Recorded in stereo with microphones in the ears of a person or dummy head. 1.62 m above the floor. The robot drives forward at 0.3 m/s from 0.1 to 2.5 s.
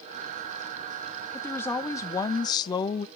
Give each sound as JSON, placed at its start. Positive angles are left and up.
{"t": 1.3, "sound": "a woman speaking", "side_deg": 15, "distance_m": 0.9}